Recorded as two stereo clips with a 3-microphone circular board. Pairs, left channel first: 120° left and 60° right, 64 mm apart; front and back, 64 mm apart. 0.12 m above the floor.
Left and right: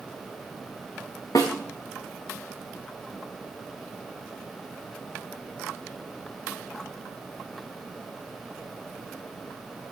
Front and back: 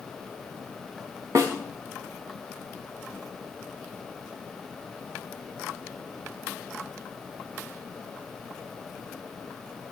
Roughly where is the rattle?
No rattle in this recording.